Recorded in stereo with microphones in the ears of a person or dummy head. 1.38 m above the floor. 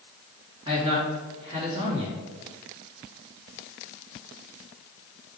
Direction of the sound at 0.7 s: 35° right (ahead or behind).